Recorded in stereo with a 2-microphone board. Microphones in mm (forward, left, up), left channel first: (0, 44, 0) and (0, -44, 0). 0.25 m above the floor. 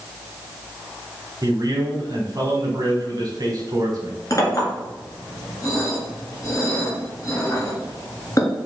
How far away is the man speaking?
About 1.5 m.